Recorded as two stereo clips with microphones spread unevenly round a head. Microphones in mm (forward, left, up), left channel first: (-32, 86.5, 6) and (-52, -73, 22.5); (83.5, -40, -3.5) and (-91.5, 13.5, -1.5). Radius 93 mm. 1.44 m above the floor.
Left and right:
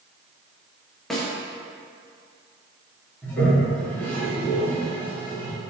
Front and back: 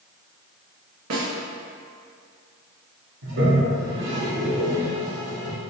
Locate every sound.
1.1 s a snare drum: 170° left, 1.2 m
3.2 s a toilet flushing: 165° left, 1.7 m